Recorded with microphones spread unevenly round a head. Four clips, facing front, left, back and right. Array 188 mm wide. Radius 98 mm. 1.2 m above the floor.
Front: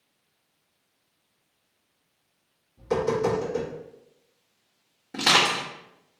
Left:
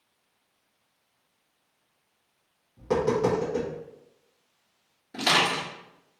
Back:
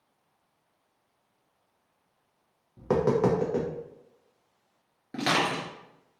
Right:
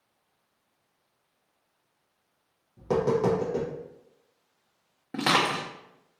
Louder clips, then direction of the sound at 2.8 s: Even, back 1 dB; 170° right.